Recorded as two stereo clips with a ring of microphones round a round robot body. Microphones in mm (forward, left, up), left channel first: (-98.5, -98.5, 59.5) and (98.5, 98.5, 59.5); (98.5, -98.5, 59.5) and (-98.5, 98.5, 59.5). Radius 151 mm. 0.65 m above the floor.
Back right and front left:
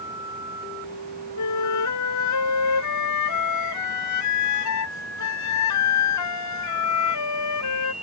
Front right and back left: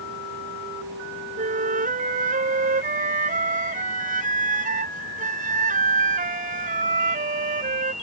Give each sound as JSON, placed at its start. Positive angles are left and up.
{"t": 1.4, "sound": "a flute", "azimuth_deg": -160}